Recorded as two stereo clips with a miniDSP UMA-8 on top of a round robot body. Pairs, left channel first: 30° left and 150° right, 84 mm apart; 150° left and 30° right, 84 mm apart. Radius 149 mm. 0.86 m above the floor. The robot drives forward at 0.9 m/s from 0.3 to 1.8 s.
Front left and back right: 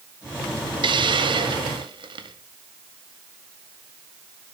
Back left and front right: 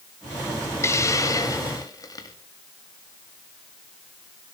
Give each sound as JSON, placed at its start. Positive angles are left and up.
{"t": 0.8, "sound": "a hiss", "azimuth_deg": -155, "distance_m": 1.4}